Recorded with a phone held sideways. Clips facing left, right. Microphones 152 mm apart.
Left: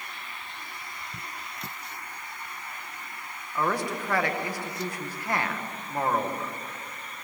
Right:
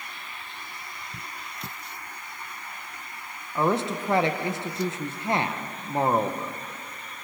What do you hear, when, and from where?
3.5 s a man speaking: 25° right (ahead or behind), 1.5 m